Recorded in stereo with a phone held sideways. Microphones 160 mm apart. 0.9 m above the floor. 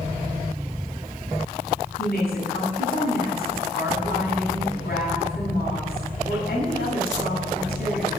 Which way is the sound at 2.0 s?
75° left (ahead or behind).